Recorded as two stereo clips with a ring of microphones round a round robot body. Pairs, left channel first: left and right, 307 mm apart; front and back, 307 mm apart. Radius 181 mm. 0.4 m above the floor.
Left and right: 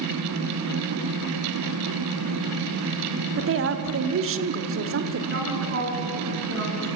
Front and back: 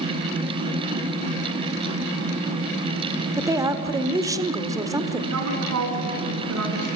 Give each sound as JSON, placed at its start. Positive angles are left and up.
{"t": 3.4, "sound": "a woman speaking", "azimuth_deg": -105, "distance_m": 1.6}
{"t": 5.3, "sound": "a woman speaking", "azimuth_deg": -145, "distance_m": 6.5}